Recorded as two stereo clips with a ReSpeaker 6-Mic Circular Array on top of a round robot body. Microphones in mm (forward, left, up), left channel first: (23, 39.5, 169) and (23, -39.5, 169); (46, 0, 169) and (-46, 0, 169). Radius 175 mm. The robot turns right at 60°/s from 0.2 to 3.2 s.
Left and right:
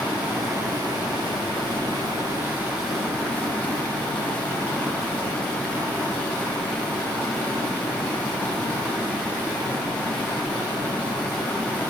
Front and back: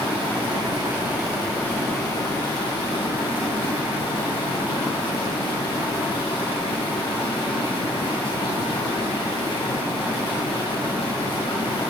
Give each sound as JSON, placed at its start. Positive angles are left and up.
{"t": 0.0, "sound": "running water", "azimuth_deg": -165, "distance_m": 3.0}